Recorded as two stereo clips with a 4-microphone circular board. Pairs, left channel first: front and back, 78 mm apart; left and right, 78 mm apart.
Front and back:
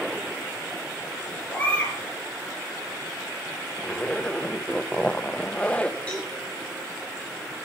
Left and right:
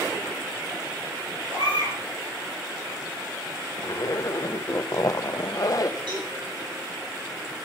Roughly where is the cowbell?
Right.